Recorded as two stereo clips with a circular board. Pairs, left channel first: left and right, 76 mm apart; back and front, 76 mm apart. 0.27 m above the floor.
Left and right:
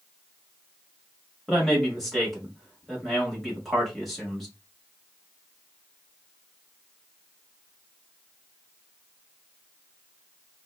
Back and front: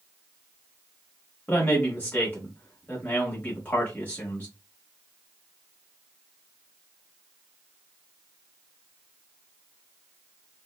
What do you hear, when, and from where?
1.5 s a man speaking: straight behind, 1.4 m